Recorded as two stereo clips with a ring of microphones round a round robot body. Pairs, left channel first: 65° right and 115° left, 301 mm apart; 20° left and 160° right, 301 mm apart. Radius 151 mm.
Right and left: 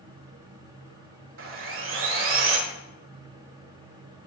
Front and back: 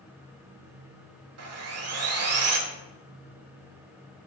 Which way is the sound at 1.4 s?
160° left.